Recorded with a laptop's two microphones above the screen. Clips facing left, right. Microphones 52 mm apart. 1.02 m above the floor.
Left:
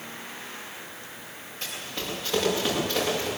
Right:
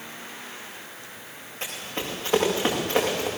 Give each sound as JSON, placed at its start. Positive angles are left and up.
{"t": 1.6, "sound": "running footsteps", "side_deg": -30, "distance_m": 8.0}